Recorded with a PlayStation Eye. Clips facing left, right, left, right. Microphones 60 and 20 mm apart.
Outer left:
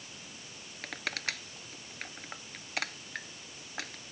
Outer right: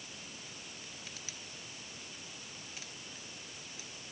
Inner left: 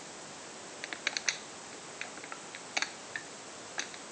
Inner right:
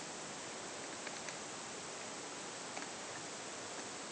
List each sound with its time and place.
0.8 s crushing: 70° left (ahead or behind)